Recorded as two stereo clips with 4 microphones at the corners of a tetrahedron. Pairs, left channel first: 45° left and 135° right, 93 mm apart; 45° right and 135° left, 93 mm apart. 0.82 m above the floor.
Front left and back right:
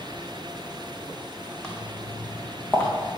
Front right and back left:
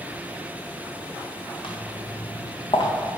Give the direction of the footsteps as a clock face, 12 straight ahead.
1 o'clock.